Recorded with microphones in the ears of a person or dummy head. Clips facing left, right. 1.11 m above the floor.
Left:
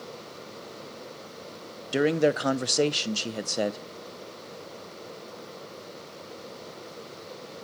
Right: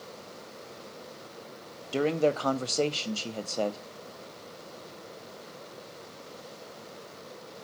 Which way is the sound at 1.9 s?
15° left (ahead or behind).